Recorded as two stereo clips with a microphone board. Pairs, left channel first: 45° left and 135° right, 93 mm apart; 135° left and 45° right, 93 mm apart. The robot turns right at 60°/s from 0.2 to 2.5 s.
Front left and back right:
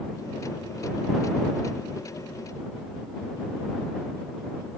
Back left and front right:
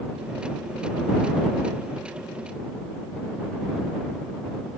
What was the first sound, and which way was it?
Only background noise.